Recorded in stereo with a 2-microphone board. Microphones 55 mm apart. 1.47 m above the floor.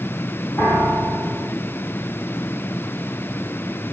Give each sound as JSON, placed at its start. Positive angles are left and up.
{"t": 0.6, "sound": "a piano", "side_deg": 45, "distance_m": 3.0}